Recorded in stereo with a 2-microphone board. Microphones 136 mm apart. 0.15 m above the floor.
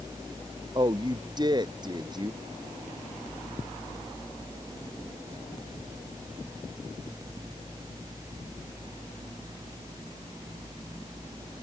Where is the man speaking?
30° right (ahead or behind).